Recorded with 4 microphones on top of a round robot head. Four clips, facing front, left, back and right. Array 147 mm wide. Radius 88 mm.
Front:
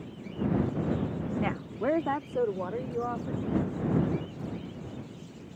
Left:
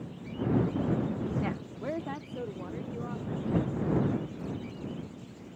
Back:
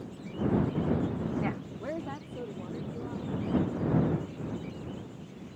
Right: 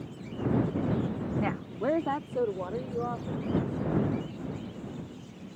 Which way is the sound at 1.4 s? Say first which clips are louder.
Right 4 dB, front 4 dB; 45° right.